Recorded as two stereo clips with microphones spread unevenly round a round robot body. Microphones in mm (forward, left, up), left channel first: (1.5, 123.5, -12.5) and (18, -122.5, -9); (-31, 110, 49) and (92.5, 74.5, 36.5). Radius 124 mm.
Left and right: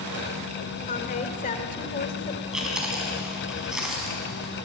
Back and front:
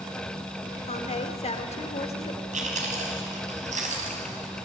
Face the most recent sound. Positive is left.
turn(degrees=0)